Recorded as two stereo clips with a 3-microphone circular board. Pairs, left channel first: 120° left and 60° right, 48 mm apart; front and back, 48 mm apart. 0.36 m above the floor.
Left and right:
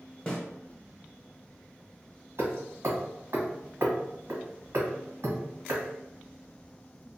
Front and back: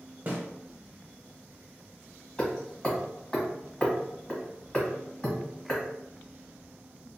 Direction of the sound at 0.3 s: Straight behind.